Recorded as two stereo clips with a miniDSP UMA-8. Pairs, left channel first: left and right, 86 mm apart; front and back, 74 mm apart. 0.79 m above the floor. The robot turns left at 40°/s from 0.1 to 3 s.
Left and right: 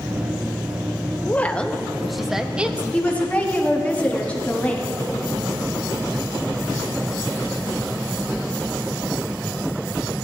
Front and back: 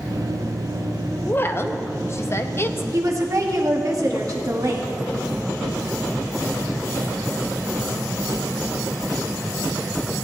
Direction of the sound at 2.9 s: 160° left.